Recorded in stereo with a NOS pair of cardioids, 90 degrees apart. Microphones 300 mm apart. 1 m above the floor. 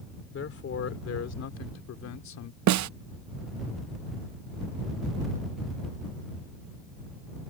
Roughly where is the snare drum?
Ahead right.